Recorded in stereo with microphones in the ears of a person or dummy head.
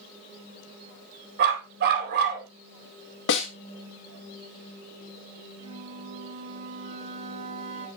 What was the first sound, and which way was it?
A dog barking, 55° right (ahead or behind).